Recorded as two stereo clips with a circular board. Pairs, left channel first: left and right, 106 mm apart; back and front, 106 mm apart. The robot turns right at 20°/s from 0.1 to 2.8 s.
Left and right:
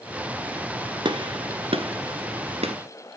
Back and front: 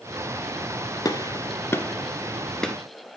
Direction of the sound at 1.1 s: 130° right.